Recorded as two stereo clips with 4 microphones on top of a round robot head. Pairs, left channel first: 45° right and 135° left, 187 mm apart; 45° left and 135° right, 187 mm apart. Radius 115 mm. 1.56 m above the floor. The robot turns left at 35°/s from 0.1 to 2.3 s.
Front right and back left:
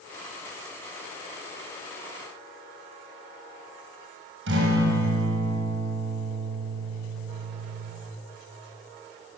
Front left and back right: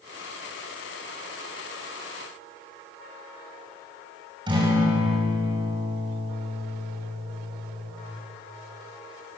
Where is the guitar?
160° left, 7 m.